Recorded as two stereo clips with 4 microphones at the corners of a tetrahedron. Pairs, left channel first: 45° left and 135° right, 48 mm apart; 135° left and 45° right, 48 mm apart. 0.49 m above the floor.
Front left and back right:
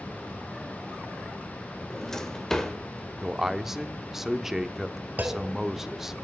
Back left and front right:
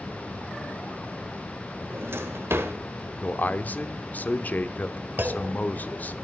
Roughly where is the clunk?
Right.